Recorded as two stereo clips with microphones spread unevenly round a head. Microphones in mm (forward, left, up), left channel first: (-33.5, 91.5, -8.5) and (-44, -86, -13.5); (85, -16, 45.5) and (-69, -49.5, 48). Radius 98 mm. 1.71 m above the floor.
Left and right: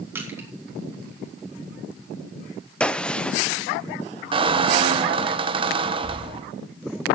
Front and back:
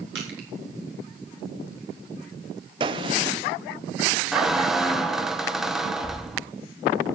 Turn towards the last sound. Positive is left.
turn(degrees=-85)